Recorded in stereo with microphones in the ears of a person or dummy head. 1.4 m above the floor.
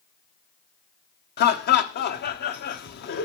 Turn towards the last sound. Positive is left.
turn(degrees=50)  # may be behind; listen again after turning